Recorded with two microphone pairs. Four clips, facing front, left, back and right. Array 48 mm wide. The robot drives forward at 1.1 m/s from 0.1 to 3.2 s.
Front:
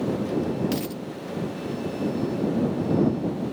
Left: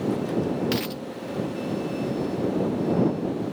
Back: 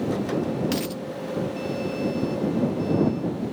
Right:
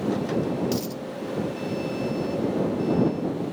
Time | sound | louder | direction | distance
0.7 | a dropped coin | left 1 dB, back 1 dB | 105° left | ?